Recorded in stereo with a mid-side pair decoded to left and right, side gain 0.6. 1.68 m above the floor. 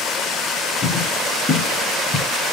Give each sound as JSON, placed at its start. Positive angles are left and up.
{"t": 0.8, "sound": "footsteps", "azimuth_deg": 35, "distance_m": 5.5}